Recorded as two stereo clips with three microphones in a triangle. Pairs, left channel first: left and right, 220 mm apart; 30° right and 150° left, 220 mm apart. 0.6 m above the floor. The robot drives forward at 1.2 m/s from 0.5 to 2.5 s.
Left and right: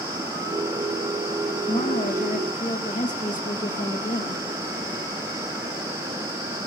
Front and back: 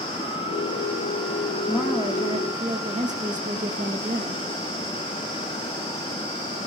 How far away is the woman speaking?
About 1.3 m.